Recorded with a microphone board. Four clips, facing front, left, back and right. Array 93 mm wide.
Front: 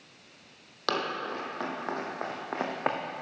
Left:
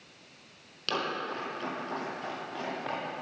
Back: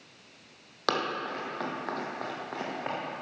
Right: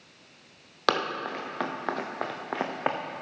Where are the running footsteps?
90° right, 3.5 m; by 3.0 s 45° right, 2 m.